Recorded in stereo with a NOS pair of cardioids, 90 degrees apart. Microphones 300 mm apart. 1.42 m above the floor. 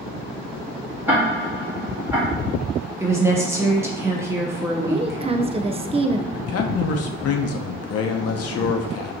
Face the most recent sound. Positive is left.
turn(degrees=60)